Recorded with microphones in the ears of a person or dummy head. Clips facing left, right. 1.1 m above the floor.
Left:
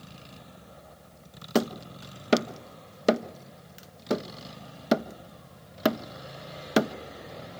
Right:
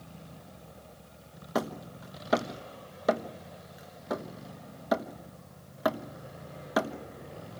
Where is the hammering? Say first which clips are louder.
Left 6 dB; 45° left (ahead or behind), 1.0 m.